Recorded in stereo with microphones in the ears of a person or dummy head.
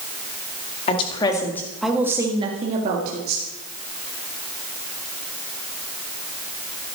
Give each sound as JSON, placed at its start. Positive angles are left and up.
{"t": 0.9, "sound": "a woman speaking", "side_deg": 35, "distance_m": 2.0}